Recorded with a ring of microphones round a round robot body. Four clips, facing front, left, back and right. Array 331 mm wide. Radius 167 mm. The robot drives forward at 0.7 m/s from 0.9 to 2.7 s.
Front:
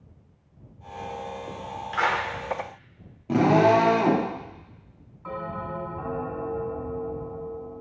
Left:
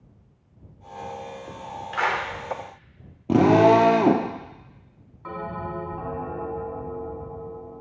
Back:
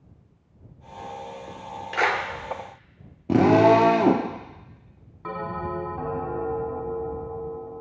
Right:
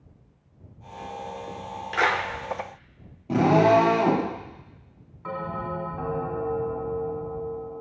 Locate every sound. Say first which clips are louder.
1.9 s a clap: right 1 dB, back 1 dB; 135° right, 1.0 m; by 2.2 s 145° right, 1.1 m
3.3 s a drill: left 3 dB, back 2 dB; 125° left, 1.3 m
5.2 s a bell: right 1 dB, back 3 dB; straight behind, 2.5 m